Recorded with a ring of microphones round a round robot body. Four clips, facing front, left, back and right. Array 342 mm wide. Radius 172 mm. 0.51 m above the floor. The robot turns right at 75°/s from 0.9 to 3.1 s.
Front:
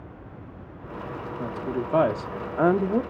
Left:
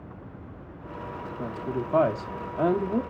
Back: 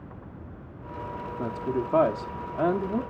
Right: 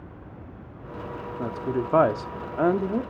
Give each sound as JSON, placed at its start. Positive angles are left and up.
{"t": 1.4, "sound": "a woman speaking", "azimuth_deg": -125, "distance_m": 0.7}